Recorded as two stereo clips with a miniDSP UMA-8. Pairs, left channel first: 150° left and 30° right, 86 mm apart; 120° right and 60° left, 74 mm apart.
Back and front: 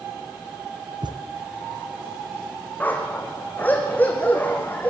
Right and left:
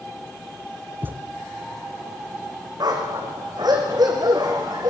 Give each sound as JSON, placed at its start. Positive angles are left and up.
{"t": 1.0, "sound": "a thud", "azimuth_deg": -5, "distance_m": 1.6}
{"t": 2.8, "sound": "a dog barking", "azimuth_deg": 80, "distance_m": 4.5}